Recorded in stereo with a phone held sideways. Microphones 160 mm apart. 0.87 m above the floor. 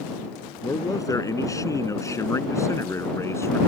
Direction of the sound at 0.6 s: 20° left (ahead or behind).